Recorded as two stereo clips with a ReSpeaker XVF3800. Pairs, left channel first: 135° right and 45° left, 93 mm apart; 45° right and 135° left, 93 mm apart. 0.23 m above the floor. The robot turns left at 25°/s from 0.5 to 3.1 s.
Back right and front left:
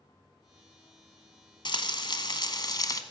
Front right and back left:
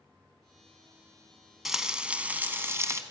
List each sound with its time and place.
1.6 s frying: 140° right, 1.1 m; by 3.0 s 170° right, 1.1 m